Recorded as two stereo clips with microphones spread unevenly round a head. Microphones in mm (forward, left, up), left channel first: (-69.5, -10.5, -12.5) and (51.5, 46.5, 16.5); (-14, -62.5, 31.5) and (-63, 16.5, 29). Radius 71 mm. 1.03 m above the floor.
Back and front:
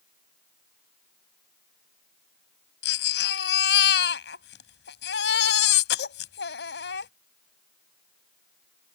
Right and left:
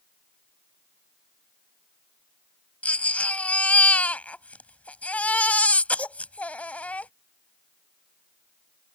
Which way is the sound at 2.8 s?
135° right.